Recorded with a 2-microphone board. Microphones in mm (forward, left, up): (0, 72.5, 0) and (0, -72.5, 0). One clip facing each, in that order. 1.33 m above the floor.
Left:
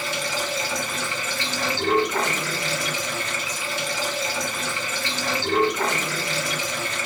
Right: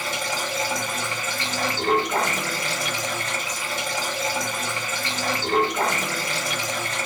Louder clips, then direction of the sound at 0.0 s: Left 1 dB; 55° right (ahead or behind).